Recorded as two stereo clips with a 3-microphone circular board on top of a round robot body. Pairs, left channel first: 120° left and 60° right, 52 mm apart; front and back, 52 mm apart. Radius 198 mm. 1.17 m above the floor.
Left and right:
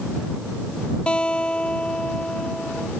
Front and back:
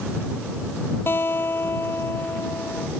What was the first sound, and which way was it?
A guitar, 45° left.